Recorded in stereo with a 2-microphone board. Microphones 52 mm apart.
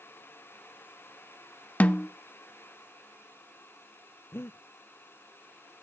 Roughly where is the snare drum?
Left.